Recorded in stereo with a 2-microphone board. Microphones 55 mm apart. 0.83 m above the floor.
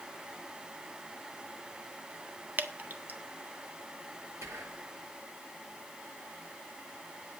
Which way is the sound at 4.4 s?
60° right (ahead or behind).